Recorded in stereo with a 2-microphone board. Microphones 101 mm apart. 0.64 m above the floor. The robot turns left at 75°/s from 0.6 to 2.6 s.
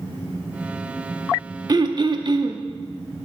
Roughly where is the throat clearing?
Ahead right.